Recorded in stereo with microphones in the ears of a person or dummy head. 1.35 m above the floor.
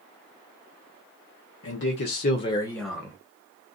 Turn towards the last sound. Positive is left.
turn(degrees=-15)  # may be behind; listen again after turning